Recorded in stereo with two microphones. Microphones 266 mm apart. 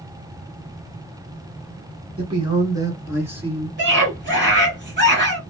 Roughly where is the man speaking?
Centre.